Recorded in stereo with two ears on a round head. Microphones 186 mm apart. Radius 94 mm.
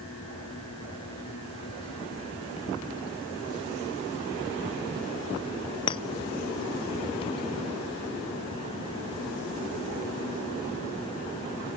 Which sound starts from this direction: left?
A clink, at 5.9 s.